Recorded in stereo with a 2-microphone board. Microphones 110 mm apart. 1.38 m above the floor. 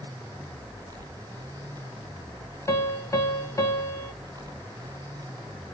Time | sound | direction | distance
2.7 | a piano | 25° left (ahead or behind) | 1.1 m